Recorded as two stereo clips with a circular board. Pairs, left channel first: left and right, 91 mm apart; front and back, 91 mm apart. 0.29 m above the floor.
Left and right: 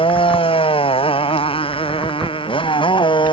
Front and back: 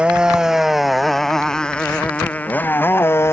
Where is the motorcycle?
100° left; by 3.3 s 65° left.